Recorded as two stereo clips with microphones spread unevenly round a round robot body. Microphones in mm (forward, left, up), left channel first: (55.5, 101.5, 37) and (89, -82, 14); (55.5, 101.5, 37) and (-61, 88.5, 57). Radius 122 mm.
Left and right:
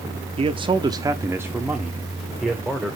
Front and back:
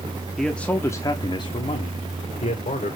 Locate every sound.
0.4 s a man speaking: 70° right, 0.8 m; by 3.0 s 10° left, 1.7 m